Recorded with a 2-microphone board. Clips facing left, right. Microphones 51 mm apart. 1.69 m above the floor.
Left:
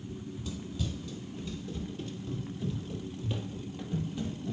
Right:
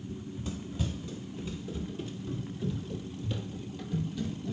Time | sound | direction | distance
0.1 | running footsteps | 30° right (ahead or behind) | 2.0 m